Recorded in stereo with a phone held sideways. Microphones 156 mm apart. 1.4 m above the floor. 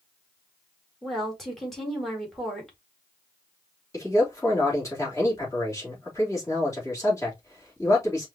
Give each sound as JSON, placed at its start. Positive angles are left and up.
{"t": 1.0, "sound": "a woman speaking", "side_deg": 0, "distance_m": 2.0}
{"t": 3.9, "sound": "a man speaking", "side_deg": 20, "distance_m": 3.0}